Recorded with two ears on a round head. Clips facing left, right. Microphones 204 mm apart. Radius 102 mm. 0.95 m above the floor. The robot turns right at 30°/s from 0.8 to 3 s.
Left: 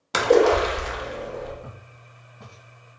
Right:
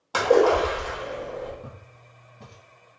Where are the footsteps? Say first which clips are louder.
Even; 20° right (ahead or behind), 1.5 m; by 2.6 s centre (ahead or behind), 1.5 m.